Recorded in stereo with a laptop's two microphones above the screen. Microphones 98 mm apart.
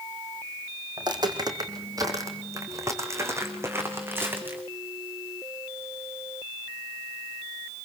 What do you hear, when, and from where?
1.0 s footsteps: 45° right (ahead or behind), 4 m; by 4.6 s 20° right (ahead or behind), 5.5 m